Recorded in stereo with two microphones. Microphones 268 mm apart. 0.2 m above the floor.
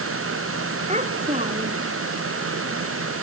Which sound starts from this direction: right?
A child speaking, at 0.9 s.